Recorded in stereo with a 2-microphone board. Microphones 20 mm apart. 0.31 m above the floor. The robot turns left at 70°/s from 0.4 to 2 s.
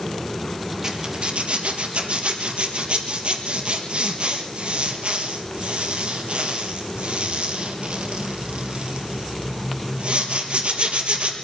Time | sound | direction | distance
0.8 | a zipper | 35° right (ahead or behind) | 3.5 m